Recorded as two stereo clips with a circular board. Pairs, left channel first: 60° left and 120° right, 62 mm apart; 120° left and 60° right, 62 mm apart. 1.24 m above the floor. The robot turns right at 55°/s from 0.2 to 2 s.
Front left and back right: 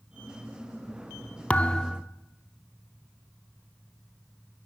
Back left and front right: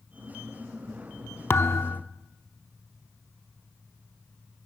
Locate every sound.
1.5 s a thud: 110° left, 0.9 m; by 2.0 s 140° left, 0.9 m